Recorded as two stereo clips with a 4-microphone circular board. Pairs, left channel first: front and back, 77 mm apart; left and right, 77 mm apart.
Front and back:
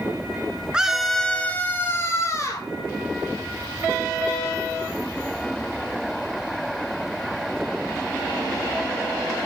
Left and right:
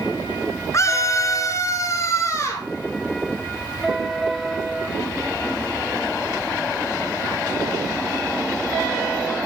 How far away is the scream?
About 1.4 m.